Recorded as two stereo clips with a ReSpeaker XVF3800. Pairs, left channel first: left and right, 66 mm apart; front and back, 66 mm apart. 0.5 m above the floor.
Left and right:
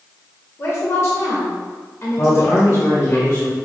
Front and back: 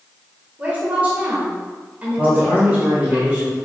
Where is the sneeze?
I don't hear a sneeze.